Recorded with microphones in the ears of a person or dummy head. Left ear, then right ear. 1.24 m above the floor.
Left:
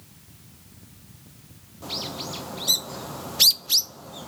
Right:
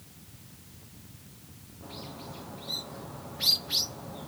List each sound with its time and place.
1.8 s a bird: 80° left, 0.7 m